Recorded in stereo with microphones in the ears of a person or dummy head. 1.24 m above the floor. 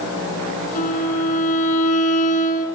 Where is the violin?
40° left (ahead or behind), 8.5 m.